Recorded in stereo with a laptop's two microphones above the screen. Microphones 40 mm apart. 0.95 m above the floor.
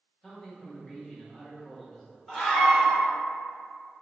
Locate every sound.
0.2 s a man speaking: 5° left (ahead or behind), 1.2 m
2.3 s a scream: centre (ahead or behind), 1.6 m